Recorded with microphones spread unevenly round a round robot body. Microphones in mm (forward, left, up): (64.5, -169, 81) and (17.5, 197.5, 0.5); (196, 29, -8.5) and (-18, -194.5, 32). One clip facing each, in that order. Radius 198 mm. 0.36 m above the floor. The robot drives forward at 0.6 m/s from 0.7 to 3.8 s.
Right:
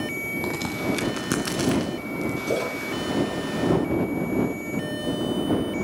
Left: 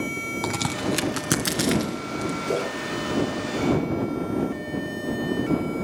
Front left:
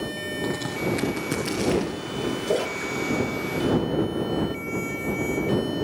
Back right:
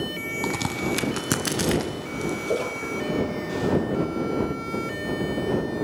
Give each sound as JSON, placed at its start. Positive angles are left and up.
{"t": 0.4, "sound": "a crack", "azimuth_deg": 165, "distance_m": 0.9}
{"t": 2.5, "sound": "a splash", "azimuth_deg": -5, "distance_m": 9.0}